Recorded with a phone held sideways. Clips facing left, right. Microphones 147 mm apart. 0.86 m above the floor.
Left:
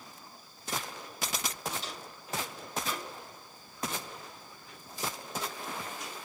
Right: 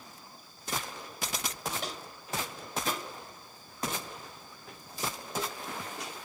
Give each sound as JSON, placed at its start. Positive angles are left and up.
{"t": 1.8, "sound": "footsteps", "side_deg": -70, "distance_m": 4.5}